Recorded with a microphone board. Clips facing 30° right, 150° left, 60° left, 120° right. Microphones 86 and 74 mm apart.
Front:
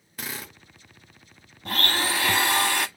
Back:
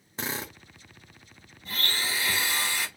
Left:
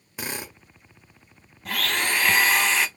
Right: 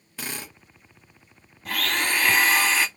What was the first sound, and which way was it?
A drill, 115° left.